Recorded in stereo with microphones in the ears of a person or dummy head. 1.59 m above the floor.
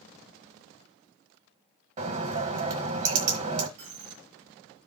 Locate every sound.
2.0 s a bird: 45° right (ahead or behind), 1.6 m
3.8 s a dropped coin: 65° right (ahead or behind), 2.5 m